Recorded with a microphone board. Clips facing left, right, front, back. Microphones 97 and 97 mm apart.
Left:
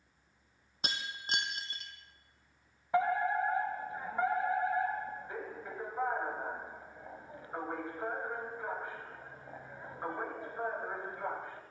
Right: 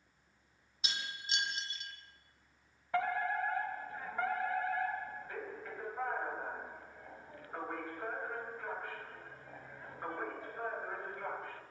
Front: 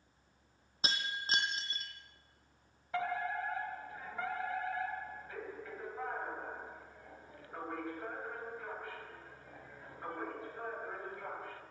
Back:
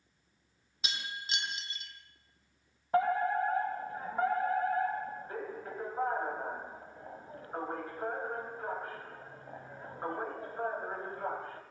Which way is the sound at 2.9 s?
155° left.